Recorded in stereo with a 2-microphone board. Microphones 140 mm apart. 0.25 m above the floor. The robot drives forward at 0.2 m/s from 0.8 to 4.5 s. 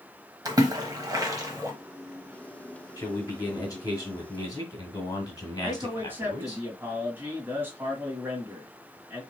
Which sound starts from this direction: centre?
A man speaking, at 5.6 s.